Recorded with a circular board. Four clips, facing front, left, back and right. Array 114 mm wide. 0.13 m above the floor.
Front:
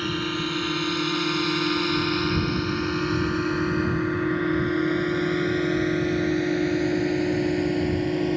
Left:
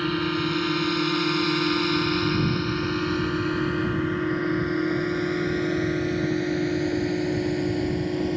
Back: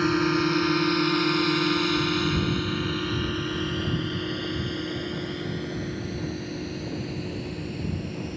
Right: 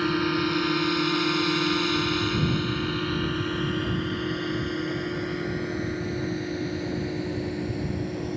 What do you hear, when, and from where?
0.0 s a drone: 165° right; by 8.4 s 25° left